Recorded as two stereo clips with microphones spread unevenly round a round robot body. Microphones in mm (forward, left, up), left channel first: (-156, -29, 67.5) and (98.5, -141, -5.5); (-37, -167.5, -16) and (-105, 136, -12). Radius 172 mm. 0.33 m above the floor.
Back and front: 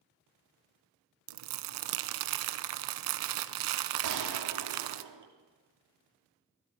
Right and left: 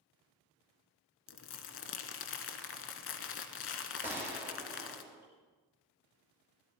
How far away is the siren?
I don't hear a siren.